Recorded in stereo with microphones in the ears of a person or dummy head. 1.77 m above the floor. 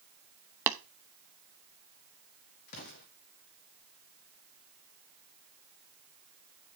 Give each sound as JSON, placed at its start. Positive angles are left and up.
{"t": 0.7, "sound": "tapping", "side_deg": -15, "distance_m": 0.9}
{"t": 2.7, "sound": "an explosion", "side_deg": 55, "distance_m": 2.0}